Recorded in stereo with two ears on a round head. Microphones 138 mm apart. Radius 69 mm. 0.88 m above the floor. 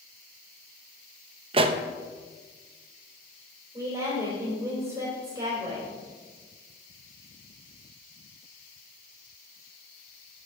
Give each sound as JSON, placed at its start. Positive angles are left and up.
{"t": 1.5, "sound": "a pop", "side_deg": -35, "distance_m": 0.6}
{"t": 3.7, "sound": "a woman speaking", "side_deg": -25, "distance_m": 3.5}